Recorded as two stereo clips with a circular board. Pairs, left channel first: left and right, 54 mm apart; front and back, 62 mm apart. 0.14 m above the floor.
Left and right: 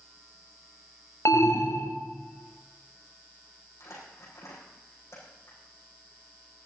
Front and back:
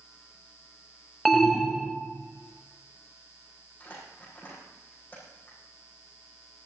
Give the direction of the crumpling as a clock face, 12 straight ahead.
10 o'clock.